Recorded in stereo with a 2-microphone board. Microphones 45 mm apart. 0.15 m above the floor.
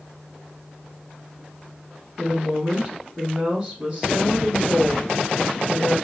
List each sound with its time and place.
2.2 s a woman speaking: 20° right (ahead or behind), 2.0 m